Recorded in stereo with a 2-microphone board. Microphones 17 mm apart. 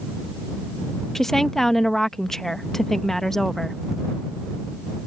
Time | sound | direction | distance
1.1 | a woman speaking | 25° left (ahead or behind) | ?